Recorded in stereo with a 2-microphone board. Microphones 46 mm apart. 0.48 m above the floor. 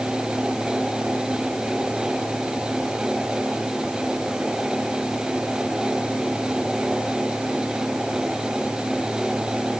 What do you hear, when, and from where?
Only background noise.